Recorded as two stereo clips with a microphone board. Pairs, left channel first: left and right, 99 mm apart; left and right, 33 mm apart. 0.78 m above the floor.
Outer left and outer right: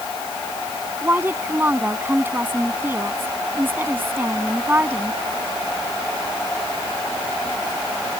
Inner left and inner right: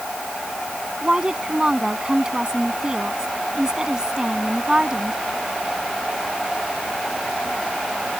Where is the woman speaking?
20° right (ahead or behind).